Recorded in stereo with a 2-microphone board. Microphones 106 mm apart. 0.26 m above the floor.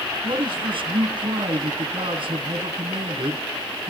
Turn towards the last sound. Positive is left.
turn(degrees=-60)  # may be behind; listen again after turning